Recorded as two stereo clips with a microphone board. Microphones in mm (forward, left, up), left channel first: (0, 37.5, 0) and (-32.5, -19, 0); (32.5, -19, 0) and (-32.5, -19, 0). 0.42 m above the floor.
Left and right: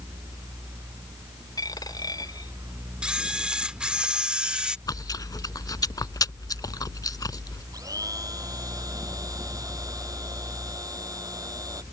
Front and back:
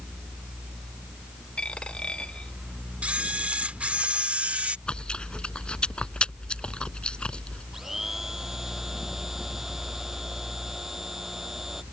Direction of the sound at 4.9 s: 75° left.